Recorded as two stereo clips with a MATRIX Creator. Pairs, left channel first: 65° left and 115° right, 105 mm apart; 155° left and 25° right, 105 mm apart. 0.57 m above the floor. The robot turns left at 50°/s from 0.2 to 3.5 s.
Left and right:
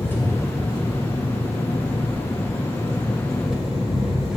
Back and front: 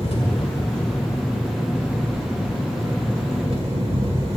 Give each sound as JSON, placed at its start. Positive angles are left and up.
{"t": 0.0, "sound": "an engine running", "azimuth_deg": 140, "distance_m": 2.5}